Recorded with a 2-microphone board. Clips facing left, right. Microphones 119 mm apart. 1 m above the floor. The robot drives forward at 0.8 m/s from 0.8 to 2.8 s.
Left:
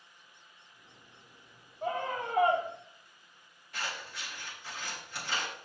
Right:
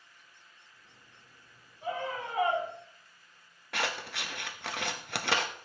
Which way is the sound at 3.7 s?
75° right (ahead or behind).